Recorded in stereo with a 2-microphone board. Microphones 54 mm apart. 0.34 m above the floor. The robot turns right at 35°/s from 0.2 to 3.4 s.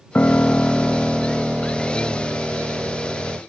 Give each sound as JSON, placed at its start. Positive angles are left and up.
{"t": 0.1, "sound": "a piano", "azimuth_deg": 145}